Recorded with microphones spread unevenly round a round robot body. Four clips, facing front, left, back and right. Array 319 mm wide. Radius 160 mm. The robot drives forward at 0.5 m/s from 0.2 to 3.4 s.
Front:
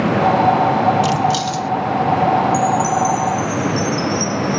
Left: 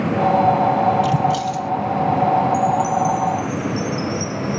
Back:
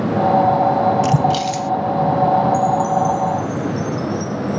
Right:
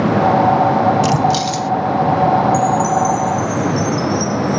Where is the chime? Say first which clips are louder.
Right 3 dB, even; 70° right.